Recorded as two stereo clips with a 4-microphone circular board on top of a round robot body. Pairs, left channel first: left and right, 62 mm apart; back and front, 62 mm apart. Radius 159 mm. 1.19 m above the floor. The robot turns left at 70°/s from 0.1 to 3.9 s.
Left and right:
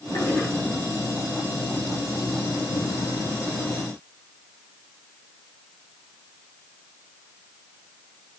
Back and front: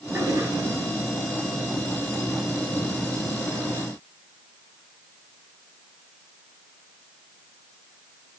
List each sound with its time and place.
0.1 s a toilet flushing: 50° left, 5.5 m; by 0.5 s 25° left, 5.5 m